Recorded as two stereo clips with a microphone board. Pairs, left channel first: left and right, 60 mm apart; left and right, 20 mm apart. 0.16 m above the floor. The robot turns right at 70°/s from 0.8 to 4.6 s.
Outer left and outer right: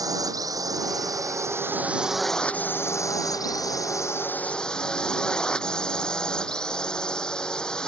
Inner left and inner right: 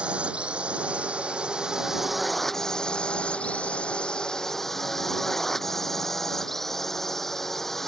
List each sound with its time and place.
0.0 s a drone: 100° right; by 7.9 s 165° left